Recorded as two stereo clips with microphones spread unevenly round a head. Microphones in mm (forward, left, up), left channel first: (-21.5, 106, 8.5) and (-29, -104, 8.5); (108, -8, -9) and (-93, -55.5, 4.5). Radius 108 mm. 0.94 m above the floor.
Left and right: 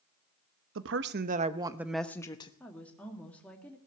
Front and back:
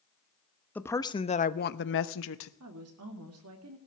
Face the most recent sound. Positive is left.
turn(degrees=170)